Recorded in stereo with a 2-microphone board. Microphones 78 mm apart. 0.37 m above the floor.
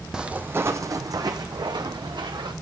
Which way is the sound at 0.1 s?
10° right (ahead or behind).